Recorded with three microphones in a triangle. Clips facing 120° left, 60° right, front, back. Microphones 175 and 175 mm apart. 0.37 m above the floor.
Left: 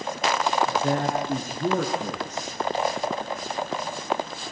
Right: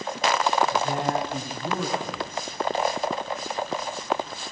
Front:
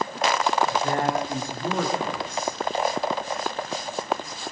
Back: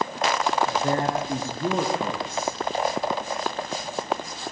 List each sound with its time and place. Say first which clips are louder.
0.7 s a man speaking: left 1 dB, even; 125° left, 6 m